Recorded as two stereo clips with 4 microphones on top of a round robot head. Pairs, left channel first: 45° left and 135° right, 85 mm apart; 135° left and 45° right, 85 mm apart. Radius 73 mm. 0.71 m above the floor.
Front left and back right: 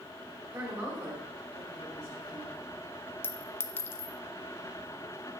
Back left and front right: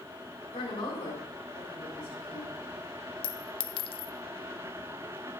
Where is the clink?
110° left, 0.5 m.